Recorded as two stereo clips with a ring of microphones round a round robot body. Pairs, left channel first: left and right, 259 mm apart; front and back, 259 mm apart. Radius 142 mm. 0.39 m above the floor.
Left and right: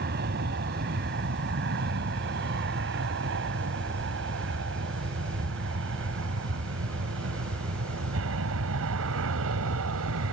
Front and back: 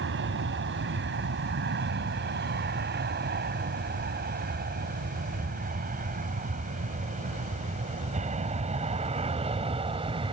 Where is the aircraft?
140° right; by 10.3 s 115° right.